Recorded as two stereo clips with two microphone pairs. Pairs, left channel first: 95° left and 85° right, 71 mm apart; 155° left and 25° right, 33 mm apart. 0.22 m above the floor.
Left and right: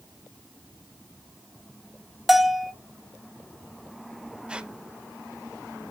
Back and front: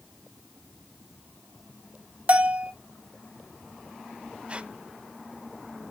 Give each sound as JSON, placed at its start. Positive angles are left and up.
{"t": 2.3, "sound": "a bell", "azimuth_deg": 0, "distance_m": 0.5}
{"t": 4.5, "sound": "a squeak", "azimuth_deg": -25, "distance_m": 0.6}